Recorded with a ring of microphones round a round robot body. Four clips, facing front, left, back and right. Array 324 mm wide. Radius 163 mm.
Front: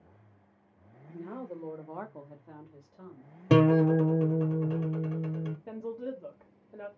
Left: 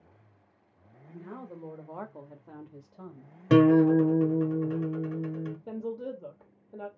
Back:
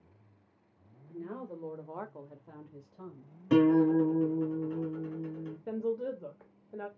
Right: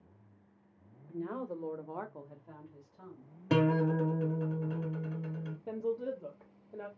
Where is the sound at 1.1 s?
90° right, 1.2 m; by 3.3 s 95° left, 1.4 m.